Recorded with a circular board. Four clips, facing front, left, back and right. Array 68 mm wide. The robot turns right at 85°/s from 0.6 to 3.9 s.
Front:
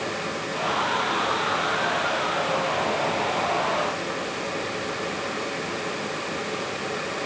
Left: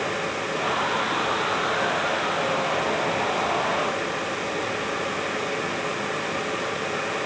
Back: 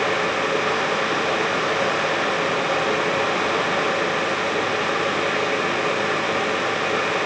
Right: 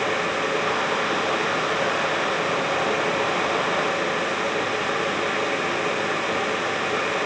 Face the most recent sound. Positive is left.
No sound to turn to.